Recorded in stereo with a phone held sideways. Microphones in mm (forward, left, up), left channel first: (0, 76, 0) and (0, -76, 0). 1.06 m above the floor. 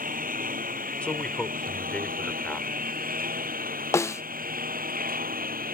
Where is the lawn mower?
65° right (ahead or behind); by 5.7 s 70° right (ahead or behind).